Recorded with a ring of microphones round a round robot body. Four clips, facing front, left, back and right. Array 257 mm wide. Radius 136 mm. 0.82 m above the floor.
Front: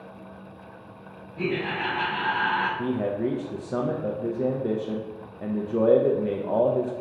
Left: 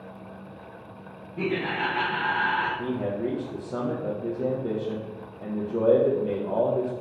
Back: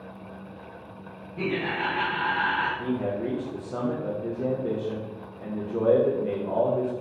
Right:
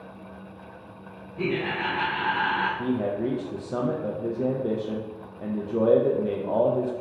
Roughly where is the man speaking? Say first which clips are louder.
Right 2 dB, front 2 dB; ahead right.